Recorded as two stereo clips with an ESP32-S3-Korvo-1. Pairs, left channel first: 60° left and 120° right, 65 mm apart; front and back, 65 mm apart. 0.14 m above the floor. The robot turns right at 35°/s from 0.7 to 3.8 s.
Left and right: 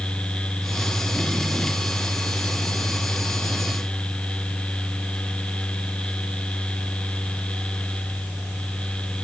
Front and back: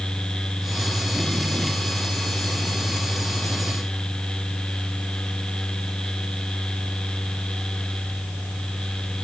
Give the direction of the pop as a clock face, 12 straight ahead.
I don't hear a pop.